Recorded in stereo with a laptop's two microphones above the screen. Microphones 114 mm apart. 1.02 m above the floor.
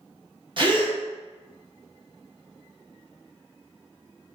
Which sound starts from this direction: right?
A gasp, at 0.6 s.